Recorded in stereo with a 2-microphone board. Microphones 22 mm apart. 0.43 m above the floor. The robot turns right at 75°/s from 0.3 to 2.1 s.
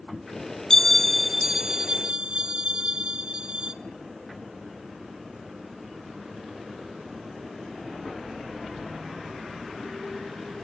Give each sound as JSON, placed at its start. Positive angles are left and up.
{"t": 0.7, "sound": "a bell", "azimuth_deg": 145, "distance_m": 1.5}